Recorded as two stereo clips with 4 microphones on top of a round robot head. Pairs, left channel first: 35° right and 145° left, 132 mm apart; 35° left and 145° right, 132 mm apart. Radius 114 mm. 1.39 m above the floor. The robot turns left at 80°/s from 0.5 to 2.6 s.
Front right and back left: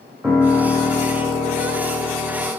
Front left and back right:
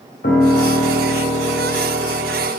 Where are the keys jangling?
No keys jangling in this recording.